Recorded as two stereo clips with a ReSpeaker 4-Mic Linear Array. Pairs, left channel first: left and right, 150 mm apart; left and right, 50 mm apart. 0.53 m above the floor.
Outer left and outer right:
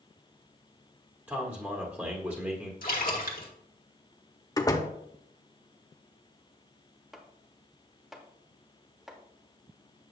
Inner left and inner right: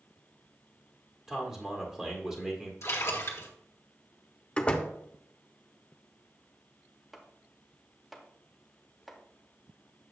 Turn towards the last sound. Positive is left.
turn(degrees=-5)  # may be behind; listen again after turning